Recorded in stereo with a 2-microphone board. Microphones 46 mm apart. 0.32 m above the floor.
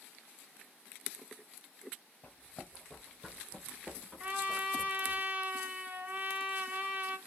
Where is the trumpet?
40° right (ahead or behind), 0.5 m.